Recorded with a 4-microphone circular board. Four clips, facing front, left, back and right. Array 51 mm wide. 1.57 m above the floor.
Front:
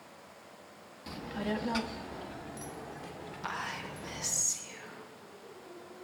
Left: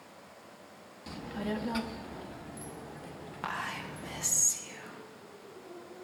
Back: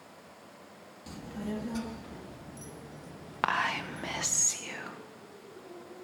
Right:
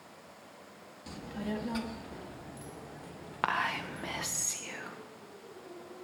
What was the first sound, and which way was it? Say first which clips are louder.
A child speaking: left 2 dB, front 3 dB; 30° left.